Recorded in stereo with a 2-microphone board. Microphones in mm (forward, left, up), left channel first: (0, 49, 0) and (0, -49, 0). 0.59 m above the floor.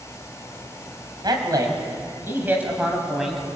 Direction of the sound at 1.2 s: 45° right (ahead or behind).